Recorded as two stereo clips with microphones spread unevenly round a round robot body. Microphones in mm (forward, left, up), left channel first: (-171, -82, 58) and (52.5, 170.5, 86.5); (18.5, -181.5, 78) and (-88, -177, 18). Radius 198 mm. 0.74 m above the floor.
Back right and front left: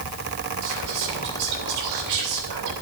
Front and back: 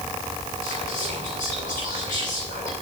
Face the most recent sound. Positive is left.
turn(degrees=30)